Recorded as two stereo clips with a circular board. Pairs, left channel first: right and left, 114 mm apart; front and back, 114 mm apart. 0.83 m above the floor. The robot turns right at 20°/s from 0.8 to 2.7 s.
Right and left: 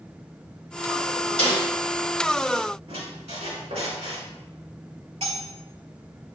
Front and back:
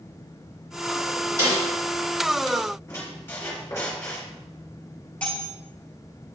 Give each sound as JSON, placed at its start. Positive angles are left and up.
{"t": 1.4, "sound": "a snare drum", "azimuth_deg": 120, "distance_m": 3.0}
{"t": 2.9, "sound": "a squeak", "azimuth_deg": 70, "distance_m": 2.0}
{"t": 5.2, "sound": "cutlery clinking", "azimuth_deg": 80, "distance_m": 2.0}